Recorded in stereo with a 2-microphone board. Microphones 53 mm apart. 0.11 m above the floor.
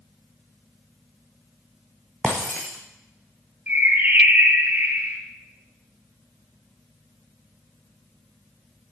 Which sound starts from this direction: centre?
Breaking glass, at 2.2 s.